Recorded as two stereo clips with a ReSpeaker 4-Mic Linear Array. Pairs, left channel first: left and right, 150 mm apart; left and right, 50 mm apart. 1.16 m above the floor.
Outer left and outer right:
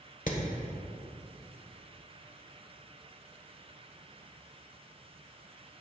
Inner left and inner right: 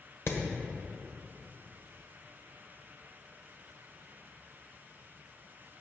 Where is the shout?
I don't hear a shout.